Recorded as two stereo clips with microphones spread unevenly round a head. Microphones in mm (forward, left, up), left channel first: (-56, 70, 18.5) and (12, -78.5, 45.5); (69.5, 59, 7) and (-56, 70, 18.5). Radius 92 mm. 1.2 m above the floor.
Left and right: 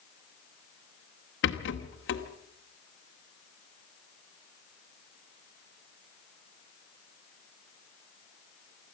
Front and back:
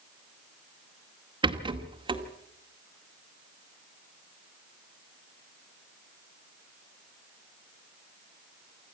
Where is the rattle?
125° left, 2 m.